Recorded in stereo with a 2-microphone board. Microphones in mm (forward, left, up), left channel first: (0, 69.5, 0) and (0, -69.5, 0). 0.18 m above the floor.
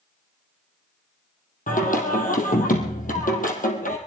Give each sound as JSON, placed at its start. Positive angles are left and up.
{"t": 1.7, "sound": "singing", "side_deg": 75, "distance_m": 3.0}